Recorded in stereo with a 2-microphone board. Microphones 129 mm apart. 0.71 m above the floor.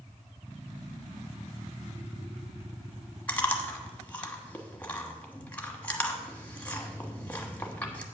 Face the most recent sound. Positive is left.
turn(degrees=10)  # may be behind; listen again after turning